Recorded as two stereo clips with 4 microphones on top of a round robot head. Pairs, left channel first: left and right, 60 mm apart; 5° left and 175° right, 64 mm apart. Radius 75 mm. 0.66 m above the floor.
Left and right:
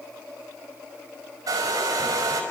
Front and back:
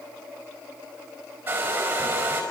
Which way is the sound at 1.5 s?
115° right.